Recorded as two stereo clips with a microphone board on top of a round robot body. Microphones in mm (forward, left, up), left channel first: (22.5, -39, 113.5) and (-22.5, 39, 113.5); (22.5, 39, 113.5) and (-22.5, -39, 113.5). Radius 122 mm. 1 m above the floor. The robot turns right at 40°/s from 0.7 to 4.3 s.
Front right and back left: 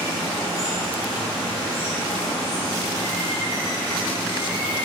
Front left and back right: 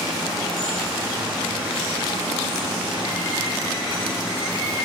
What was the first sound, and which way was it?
Running water, 155° left.